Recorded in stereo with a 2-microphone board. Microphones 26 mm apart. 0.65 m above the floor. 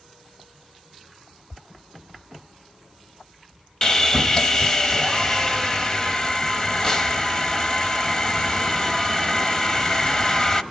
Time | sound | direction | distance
3.8 | sawing | 30° left (ahead or behind) | 0.9 m